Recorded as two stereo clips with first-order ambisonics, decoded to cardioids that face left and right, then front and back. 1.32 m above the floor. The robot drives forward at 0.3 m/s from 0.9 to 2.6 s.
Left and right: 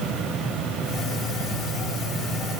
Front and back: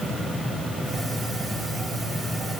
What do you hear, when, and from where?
Only background noise.